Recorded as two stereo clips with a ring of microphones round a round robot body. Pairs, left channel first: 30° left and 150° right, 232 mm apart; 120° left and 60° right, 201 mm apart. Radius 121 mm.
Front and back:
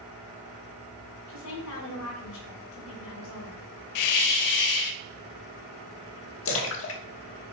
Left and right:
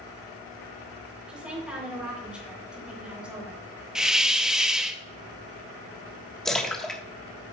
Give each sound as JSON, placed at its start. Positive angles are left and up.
{"t": 1.3, "sound": "a woman speaking", "azimuth_deg": 25, "distance_m": 3.5}
{"t": 4.0, "sound": "a hiss", "azimuth_deg": 25, "distance_m": 0.6}
{"t": 6.5, "sound": "a splash", "azimuth_deg": 35, "distance_m": 1.3}